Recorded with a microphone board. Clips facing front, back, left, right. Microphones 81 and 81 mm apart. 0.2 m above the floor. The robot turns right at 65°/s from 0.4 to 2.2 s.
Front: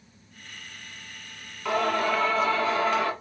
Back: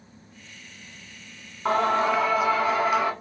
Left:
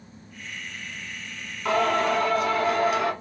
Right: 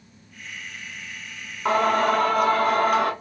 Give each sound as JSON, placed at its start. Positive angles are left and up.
{"t": 1.6, "sound": "singing", "azimuth_deg": -140, "distance_m": 1.1}